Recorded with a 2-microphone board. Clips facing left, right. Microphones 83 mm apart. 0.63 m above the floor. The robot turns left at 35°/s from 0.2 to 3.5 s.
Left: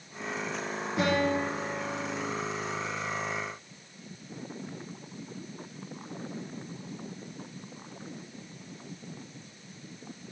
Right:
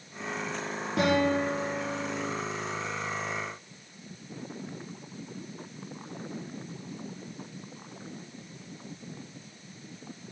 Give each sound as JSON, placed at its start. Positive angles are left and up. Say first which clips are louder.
{"t": 1.0, "sound": "a guitar", "louder": "right 2 dB", "azimuth_deg": -65, "distance_m": 4.5}